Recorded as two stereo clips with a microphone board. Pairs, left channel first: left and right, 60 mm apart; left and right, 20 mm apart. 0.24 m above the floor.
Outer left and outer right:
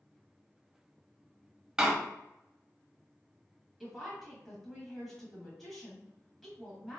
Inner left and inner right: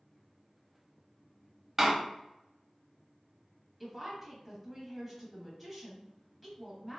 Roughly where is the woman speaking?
Centre.